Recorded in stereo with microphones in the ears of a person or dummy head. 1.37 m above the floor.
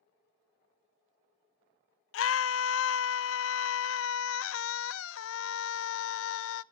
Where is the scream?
70° left (ahead or behind), 0.9 m.